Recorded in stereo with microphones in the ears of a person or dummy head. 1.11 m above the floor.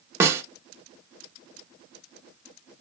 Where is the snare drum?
15° right (ahead or behind), 0.5 m.